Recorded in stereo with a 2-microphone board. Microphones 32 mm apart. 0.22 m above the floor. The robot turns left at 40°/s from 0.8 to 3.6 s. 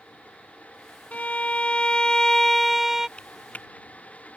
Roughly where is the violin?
Left.